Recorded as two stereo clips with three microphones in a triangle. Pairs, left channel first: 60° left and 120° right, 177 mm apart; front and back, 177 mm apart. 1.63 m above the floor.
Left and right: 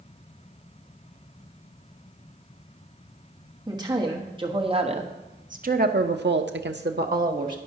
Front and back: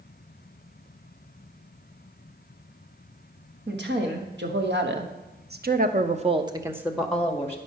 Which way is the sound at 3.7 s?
175° left.